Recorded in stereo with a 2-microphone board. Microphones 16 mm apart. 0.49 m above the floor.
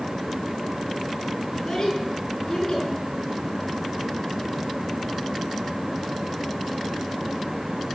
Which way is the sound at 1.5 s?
40° left (ahead or behind).